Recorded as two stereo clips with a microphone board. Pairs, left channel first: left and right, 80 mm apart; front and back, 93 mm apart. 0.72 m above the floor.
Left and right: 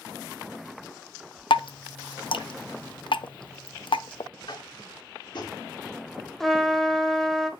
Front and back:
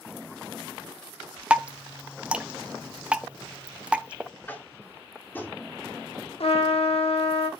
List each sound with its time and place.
1.5 s dripping: 100° left, 0.5 m
4.5 s tapping: 70° left, 1.9 m
6.4 s a trumpet: 5° left, 1.2 m